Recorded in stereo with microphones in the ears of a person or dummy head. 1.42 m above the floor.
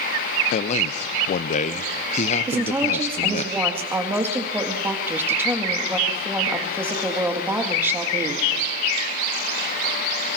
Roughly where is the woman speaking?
Centre.